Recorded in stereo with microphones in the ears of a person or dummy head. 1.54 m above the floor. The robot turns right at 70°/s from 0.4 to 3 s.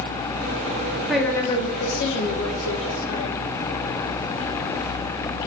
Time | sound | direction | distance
1.1 | a woman speaking | 5° right | 1.8 m